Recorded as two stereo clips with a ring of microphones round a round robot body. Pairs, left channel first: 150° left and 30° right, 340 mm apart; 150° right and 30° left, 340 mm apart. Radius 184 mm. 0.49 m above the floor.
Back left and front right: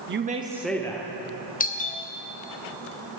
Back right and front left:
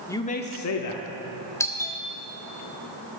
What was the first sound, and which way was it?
A man speaking, 70° right.